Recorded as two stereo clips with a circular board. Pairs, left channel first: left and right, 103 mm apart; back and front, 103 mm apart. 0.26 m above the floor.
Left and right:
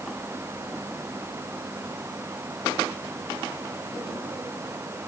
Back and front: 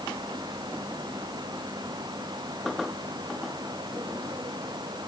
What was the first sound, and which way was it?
Only background noise.